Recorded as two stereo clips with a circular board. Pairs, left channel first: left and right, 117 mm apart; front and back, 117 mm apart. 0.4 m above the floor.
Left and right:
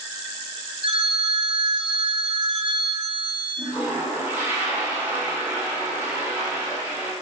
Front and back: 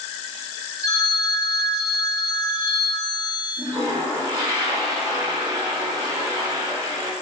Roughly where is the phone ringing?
Ahead right.